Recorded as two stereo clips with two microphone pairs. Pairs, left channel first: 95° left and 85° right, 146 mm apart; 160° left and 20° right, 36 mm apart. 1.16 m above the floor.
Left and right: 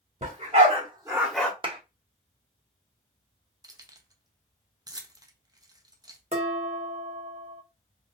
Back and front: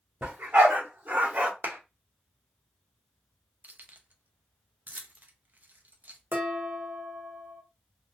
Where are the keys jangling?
30° right, 0.5 m.